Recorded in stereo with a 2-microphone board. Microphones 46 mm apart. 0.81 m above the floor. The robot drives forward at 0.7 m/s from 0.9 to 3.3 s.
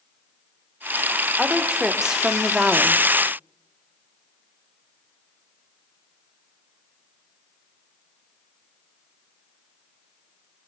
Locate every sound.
1.4 s a woman speaking: 10° right (ahead or behind), 2.5 m; by 3.0 s 20° right (ahead or behind), 1.3 m